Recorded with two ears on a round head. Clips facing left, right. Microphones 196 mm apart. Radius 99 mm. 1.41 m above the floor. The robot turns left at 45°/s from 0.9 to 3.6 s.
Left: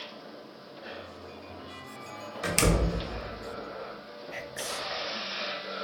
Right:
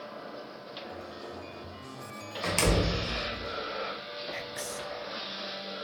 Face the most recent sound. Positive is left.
turn(degrees=0)  # may be behind; listen again after turning